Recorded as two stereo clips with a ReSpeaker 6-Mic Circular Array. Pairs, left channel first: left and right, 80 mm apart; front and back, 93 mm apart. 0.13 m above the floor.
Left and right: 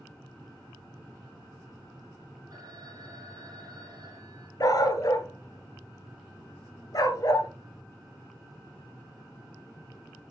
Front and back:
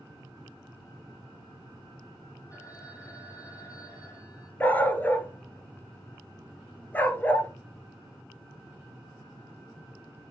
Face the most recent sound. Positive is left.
turn(degrees=70)